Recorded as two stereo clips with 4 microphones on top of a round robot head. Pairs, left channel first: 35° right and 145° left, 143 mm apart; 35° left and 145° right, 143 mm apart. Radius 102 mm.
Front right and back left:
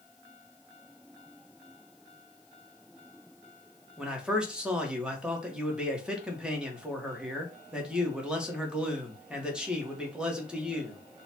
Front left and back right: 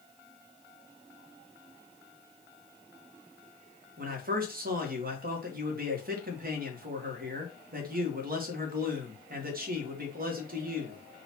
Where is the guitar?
I don't hear a guitar.